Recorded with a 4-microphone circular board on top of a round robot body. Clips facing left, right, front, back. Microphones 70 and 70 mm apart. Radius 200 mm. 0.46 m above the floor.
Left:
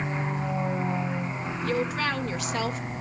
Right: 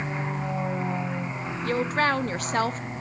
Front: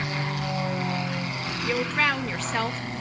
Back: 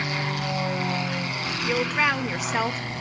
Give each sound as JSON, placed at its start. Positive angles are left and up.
{"t": 1.6, "sound": "a woman speaking", "azimuth_deg": -105, "distance_m": 1.3}